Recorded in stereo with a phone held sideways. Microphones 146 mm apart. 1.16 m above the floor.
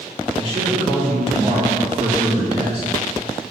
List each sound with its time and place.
0.3 s a man speaking: 45° right (ahead or behind), 4 m